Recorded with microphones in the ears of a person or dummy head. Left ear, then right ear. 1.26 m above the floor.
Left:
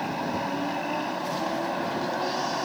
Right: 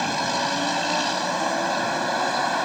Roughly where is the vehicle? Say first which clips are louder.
Right 6 dB; right.